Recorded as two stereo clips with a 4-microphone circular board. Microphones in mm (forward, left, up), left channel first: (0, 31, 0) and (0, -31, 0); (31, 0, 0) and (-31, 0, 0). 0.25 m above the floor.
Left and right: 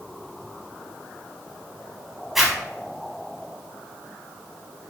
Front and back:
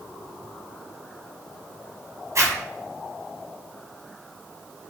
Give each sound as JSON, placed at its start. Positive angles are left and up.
{"t": 2.4, "sound": "a zipper", "azimuth_deg": -175, "distance_m": 0.9}